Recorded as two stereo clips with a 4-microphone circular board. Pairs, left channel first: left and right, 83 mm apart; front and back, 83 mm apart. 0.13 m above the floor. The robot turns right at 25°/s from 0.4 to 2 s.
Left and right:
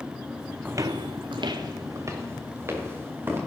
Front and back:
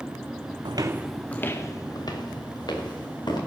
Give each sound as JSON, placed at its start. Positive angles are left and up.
{"t": 0.7, "sound": "footsteps", "azimuth_deg": -160, "distance_m": 0.6}